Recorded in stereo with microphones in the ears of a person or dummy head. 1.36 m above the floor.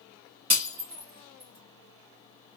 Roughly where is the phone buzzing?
I don't hear a phone buzzing.